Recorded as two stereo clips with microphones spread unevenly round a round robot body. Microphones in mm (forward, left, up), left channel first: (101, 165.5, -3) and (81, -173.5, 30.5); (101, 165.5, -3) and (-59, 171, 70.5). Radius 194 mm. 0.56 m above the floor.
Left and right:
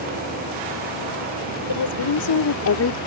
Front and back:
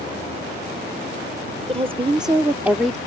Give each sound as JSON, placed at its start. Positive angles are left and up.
{"t": 1.7, "sound": "a woman speaking", "azimuth_deg": 115}